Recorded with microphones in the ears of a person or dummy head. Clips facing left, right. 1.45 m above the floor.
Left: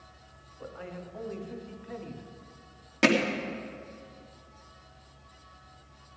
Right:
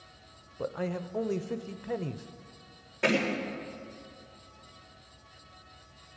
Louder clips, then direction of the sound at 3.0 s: Left 4 dB; 80° left.